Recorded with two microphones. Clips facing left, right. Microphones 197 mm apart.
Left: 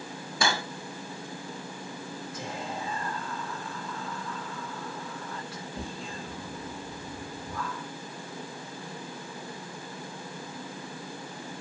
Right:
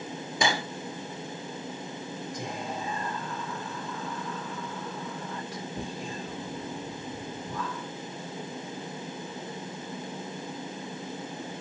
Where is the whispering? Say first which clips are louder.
Even; 15° right (ahead or behind), 3 m.